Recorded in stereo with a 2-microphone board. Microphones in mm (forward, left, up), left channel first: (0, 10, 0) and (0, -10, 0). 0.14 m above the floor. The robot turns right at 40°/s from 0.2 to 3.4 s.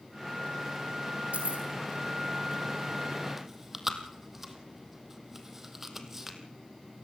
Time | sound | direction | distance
1.3 | keys jangling | 70° right (ahead or behind) | 3.5 m
3.4 | chewing | 15° right (ahead or behind) | 2 m